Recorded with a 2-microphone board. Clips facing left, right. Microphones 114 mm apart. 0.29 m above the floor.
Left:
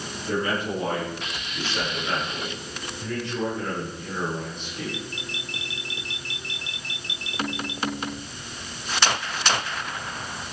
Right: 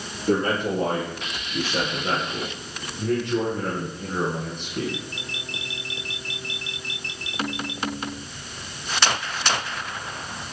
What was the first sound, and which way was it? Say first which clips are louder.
A man speaking: right 4 dB; 50° right (ahead or behind).